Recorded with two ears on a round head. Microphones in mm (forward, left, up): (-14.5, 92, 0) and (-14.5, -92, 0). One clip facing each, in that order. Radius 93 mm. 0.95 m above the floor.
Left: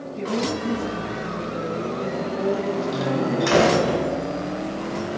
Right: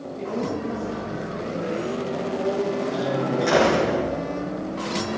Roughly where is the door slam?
Left.